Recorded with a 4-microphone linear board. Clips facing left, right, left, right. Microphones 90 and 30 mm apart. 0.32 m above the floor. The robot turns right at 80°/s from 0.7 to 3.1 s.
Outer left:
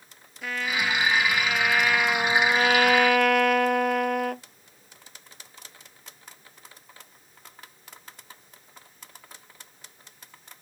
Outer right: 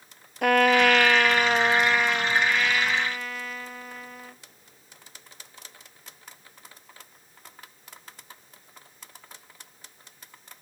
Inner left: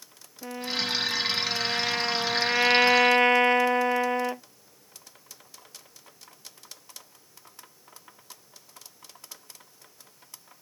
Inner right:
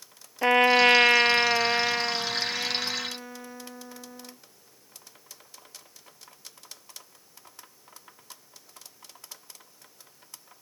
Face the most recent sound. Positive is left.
turn(degrees=80)